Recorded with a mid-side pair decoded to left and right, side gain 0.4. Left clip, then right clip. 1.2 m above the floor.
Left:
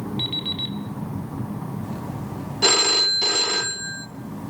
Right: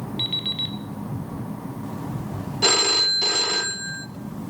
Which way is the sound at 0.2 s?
10° right.